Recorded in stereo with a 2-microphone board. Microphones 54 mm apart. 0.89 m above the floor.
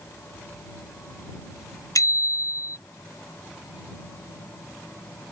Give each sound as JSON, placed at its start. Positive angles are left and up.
{"t": 1.9, "sound": "a bicycle bell", "side_deg": 85}